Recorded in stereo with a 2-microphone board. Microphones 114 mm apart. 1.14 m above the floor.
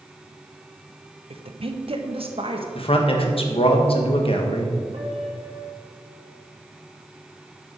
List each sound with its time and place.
1.3 s a woman speaking: 55° right (ahead or behind), 0.9 m
2.8 s a man speaking: 55° left (ahead or behind), 1.5 m
4.9 s a piano: 65° right (ahead or behind), 3 m